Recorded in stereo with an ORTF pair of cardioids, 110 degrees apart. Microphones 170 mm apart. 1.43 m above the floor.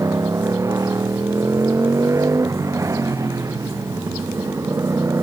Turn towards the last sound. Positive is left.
turn(degrees=-15)